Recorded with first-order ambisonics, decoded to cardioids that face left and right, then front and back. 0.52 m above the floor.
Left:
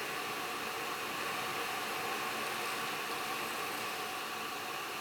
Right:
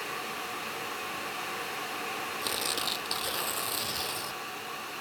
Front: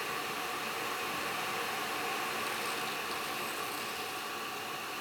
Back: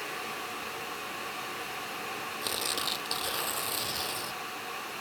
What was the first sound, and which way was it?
Tearing paper, 130° right.